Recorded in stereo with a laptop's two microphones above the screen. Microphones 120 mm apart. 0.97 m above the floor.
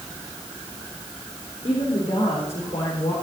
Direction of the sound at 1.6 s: 65° left (ahead or behind).